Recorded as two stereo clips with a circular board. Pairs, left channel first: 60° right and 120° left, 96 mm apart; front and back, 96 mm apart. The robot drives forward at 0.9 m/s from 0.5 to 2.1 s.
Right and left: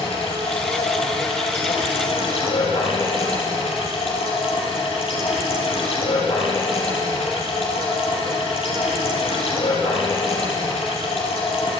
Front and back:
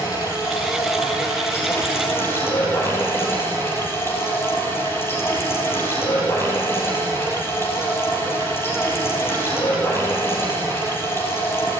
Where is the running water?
55° right, 6 m; by 11.8 s 65° right, 5.5 m.